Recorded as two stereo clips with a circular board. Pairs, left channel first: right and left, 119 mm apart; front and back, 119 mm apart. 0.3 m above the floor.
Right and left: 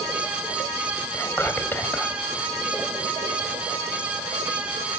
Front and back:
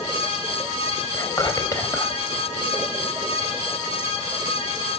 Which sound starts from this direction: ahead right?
Whispering, at 1.1 s.